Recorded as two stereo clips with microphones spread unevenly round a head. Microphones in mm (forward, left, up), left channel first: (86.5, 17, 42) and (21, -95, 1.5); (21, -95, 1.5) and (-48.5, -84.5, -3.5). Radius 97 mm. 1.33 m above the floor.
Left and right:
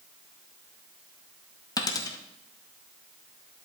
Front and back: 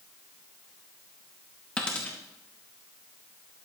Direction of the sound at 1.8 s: 60° left.